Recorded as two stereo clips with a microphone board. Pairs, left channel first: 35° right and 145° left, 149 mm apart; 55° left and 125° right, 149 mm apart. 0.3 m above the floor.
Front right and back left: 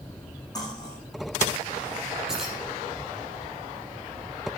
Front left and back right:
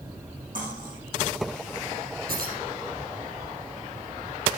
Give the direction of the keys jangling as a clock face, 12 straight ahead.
4 o'clock.